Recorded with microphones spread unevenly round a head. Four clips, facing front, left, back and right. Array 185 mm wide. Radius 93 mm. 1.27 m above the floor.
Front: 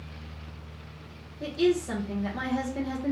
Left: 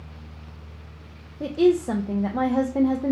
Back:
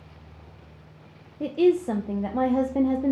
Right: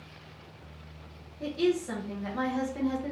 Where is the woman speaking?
135° left, 0.7 m.